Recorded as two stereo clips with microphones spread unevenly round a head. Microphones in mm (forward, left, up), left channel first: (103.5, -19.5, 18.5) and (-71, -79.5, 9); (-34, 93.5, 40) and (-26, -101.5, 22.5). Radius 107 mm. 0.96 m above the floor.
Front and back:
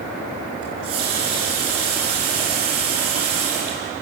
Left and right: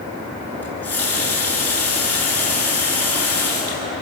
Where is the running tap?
175° left, 10 m.